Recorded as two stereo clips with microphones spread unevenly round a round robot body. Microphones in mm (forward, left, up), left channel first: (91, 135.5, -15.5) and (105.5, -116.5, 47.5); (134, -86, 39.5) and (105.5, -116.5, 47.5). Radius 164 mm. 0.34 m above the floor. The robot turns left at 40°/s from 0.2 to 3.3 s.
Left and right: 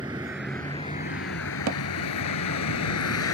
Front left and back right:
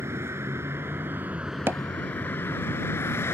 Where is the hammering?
120° right; by 1.8 s 130° right.